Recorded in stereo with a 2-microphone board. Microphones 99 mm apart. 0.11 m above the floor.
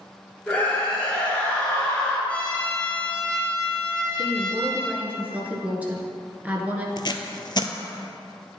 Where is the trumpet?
15° left (ahead or behind), 3 m.